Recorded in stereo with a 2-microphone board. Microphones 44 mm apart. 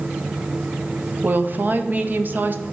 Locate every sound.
1.2 s a woman speaking: 45° right (ahead or behind), 0.6 m